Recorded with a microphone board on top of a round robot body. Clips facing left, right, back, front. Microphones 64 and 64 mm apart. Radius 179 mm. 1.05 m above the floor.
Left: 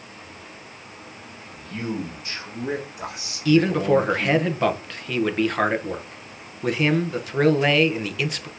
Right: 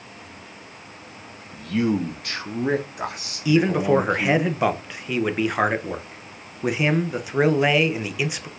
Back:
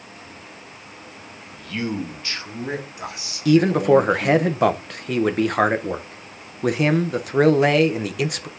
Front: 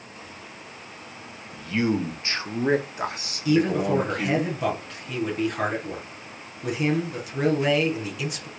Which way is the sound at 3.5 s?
170° right.